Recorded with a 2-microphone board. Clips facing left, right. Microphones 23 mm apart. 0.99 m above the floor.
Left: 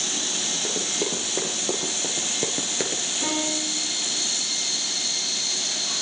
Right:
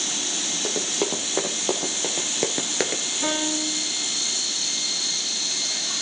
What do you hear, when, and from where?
0.6 s running footsteps: 25° right (ahead or behind), 3 m; by 3.0 s 20° right (ahead or behind), 1.0 m
3.2 s a piano: 10° right (ahead or behind), 8.5 m